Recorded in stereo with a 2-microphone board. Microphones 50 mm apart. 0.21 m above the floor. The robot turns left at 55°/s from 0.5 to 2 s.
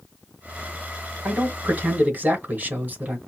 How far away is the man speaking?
About 1.7 m.